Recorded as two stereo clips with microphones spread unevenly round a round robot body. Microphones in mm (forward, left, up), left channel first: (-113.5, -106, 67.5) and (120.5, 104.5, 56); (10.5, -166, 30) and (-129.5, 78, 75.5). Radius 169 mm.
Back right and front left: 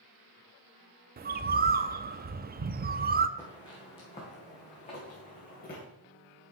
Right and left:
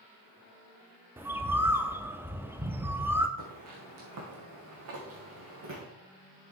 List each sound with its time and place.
1.2 s a bird: 25° left, 0.5 m
3.4 s footsteps: 145° left, 3 m; by 5.8 s 160° left, 4 m